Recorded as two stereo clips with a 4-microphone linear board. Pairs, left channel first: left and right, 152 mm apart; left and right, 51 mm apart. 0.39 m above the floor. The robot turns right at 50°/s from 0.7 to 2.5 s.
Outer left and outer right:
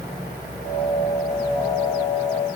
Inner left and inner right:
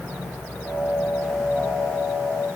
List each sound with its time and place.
Only background noise.